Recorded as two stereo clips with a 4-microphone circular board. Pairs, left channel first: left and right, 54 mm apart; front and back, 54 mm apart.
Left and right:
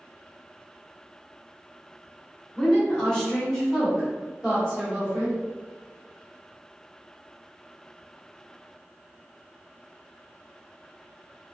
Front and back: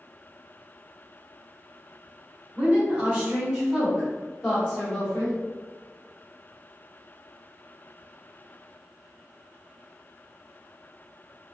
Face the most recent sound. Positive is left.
turn(degrees=-40)